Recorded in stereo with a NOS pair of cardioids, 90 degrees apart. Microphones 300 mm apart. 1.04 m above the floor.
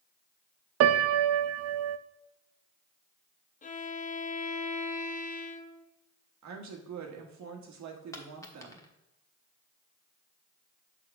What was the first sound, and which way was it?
A piano, 55° right.